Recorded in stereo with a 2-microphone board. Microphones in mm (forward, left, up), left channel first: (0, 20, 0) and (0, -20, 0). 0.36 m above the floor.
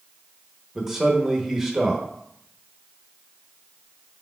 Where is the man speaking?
10° right (ahead or behind), 0.8 m.